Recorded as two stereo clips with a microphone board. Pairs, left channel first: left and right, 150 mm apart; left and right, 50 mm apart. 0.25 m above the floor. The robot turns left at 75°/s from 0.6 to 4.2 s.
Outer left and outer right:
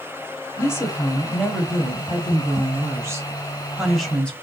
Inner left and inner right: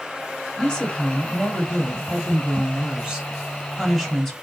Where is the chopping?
No chopping in this recording.